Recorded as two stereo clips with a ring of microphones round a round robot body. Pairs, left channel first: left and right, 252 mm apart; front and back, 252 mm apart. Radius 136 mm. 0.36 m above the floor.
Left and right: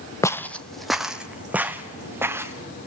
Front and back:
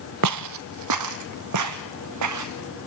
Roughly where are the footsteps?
Behind.